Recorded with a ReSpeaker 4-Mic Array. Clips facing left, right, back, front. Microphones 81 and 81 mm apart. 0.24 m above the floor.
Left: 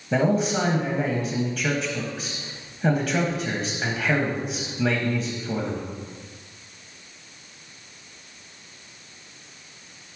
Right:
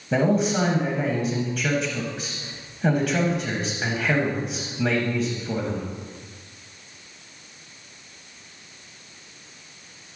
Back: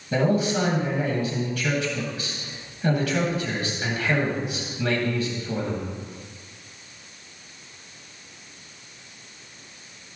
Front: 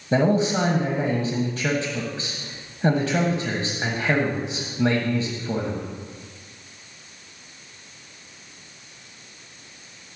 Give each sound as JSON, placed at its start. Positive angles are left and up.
{"t": 0.1, "sound": "a man speaking", "azimuth_deg": 0, "distance_m": 1.4}